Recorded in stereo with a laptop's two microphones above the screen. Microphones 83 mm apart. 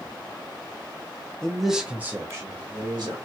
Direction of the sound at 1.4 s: 10° left (ahead or behind).